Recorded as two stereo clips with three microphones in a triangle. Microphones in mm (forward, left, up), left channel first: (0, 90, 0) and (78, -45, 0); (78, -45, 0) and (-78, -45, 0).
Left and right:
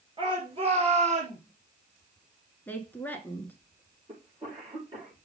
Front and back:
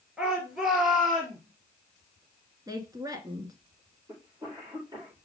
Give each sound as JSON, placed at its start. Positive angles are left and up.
{"t": 0.2, "sound": "a shout", "azimuth_deg": -95, "distance_m": 2.5}
{"t": 2.7, "sound": "a woman speaking", "azimuth_deg": 180, "distance_m": 1.3}
{"t": 4.1, "sound": "a cough", "azimuth_deg": -110, "distance_m": 5.0}